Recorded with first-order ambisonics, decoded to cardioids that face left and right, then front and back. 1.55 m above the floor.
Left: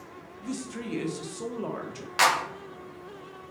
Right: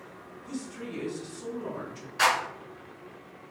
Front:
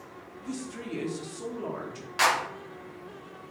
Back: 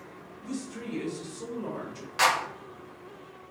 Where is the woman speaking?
85° left, 0.8 m.